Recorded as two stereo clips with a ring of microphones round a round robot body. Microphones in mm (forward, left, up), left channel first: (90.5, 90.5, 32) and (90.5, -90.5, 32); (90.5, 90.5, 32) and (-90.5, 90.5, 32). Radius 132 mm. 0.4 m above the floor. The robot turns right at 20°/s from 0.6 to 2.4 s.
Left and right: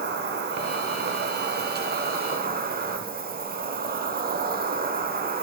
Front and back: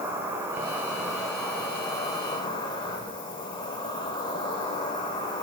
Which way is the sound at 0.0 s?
100° right.